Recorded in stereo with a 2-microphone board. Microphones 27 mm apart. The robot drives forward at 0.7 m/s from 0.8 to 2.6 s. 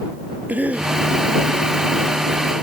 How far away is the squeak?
I don't hear a squeak.